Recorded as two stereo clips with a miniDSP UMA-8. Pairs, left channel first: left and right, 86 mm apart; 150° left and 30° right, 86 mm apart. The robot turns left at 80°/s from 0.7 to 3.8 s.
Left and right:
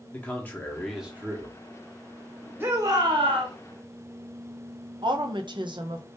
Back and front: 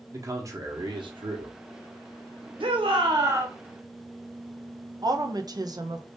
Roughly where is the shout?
Ahead right.